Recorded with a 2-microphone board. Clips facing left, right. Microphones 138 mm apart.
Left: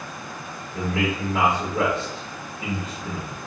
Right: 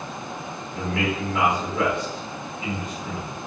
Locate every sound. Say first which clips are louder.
0.7 s a man speaking: left 1 dB; 30° left (ahead or behind), 0.8 m